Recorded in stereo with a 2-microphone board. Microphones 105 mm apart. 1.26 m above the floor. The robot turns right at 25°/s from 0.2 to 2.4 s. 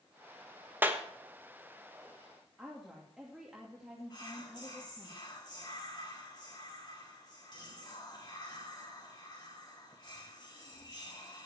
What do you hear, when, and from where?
0.8 s a clap: 20° right (ahead or behind), 1.2 m; by 1.0 s 15° right (ahead or behind), 1.2 m
2.6 s a woman speaking: 5° right (ahead or behind), 2.5 m
4.1 s whispering: 40° left (ahead or behind), 3.5 m